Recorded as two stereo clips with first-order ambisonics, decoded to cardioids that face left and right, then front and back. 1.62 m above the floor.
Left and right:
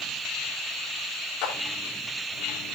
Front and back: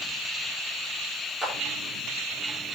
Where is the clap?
110° left, 4 m.